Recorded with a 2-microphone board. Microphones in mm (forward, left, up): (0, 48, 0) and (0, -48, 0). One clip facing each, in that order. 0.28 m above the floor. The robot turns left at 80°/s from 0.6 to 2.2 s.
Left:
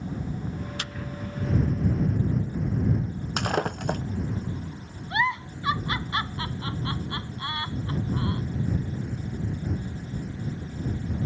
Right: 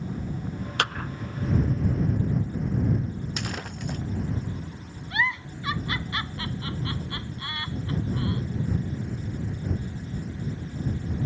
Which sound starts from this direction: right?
A clap, at 0.8 s.